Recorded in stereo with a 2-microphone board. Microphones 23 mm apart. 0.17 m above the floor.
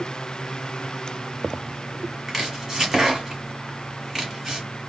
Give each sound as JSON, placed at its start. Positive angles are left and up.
{"t": 2.3, "sound": "chopping", "side_deg": -20, "distance_m": 1.3}